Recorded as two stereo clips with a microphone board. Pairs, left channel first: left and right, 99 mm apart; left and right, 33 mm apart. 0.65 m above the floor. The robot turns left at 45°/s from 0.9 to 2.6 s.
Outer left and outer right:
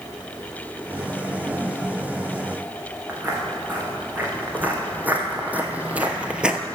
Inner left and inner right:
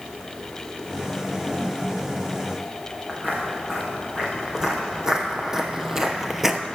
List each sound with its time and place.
3.1 s footsteps: 20° right (ahead or behind), 3.5 m; by 6.6 s 10° right (ahead or behind), 0.8 m